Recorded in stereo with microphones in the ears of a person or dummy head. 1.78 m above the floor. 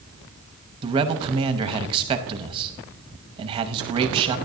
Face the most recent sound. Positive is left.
turn(degrees=-25)  # may be behind; listen again after turning